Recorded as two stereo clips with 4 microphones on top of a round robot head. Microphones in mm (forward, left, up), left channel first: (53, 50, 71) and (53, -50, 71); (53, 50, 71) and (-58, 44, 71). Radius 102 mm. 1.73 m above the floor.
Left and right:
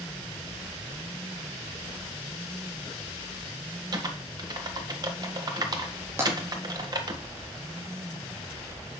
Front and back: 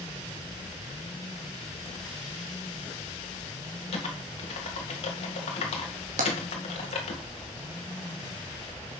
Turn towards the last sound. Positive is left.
turn(degrees=-165)